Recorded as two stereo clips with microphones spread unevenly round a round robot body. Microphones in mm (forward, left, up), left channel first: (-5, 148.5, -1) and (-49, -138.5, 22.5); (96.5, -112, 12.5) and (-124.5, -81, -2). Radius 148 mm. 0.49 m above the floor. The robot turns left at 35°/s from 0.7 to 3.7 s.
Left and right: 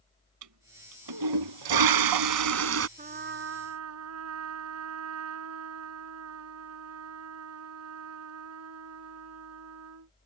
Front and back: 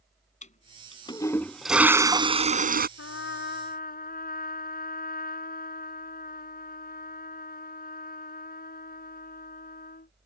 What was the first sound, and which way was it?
A toilet flushing, 65° right.